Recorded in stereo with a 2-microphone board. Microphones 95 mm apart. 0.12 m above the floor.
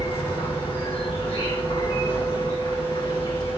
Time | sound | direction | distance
0.0 | an insect | 75° left (ahead or behind) | 3.5 m